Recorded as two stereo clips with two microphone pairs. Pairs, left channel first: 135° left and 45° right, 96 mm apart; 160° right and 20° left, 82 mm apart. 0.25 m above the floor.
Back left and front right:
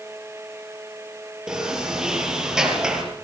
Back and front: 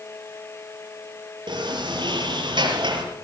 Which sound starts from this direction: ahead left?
A sliding door, at 1.5 s.